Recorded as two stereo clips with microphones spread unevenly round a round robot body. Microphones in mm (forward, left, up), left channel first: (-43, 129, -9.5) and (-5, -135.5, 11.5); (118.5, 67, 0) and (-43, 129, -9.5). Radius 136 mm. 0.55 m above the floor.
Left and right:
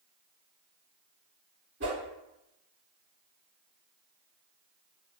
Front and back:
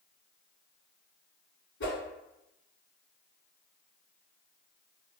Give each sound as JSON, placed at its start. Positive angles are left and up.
{"t": 1.8, "sound": "a whoosh", "azimuth_deg": -30, "distance_m": 1.0}